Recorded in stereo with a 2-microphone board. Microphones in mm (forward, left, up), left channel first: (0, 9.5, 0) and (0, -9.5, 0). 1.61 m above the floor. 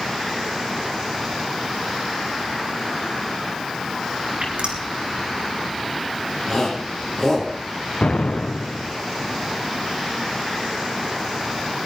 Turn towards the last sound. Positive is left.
turn(degrees=60)  # may be behind; listen again after turning